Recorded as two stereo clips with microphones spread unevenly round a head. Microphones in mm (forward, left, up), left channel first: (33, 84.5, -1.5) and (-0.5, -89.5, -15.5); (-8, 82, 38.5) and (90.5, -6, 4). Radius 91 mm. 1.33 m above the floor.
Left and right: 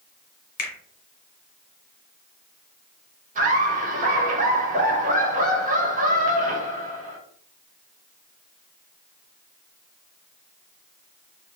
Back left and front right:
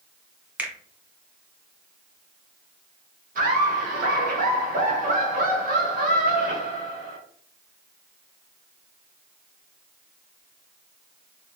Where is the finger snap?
35° left, 1.0 m.